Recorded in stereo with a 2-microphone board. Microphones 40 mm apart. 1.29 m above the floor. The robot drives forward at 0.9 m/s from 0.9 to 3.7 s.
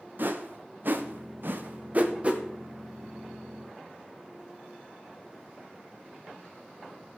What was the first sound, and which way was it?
A whoosh, 50° right (ahead or behind).